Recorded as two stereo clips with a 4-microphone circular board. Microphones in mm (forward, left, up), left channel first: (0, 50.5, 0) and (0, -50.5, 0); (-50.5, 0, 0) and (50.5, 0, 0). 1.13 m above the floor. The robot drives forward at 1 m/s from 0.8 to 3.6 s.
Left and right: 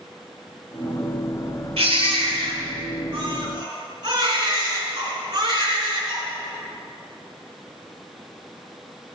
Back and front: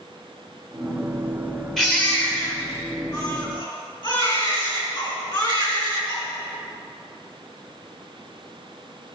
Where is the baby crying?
95° right, 2 m; by 6.2 s 135° right, 3 m.